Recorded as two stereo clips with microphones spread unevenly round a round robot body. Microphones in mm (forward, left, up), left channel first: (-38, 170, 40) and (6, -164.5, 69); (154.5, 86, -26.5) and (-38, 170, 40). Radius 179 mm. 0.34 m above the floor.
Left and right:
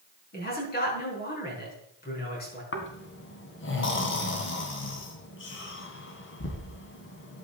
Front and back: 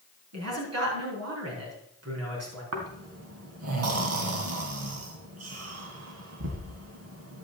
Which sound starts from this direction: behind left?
Snoring, at 2.7 s.